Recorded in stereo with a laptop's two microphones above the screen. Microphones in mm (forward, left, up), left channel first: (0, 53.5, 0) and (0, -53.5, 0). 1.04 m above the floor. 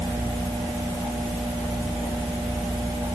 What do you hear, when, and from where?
Only background noise.